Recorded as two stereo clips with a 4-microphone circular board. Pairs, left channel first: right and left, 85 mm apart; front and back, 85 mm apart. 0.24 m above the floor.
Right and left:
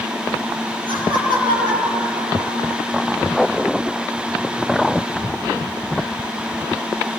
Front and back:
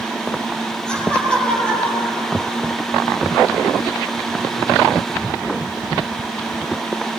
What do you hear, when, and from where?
0.9 s laughter: 80° left, 7 m; by 2.9 s 70° left, 7.5 m